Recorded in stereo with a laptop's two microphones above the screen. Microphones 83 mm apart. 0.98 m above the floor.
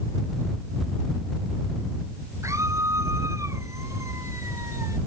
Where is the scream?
35° right (ahead or behind).